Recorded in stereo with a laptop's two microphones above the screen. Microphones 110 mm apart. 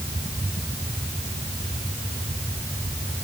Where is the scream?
No scream in this recording.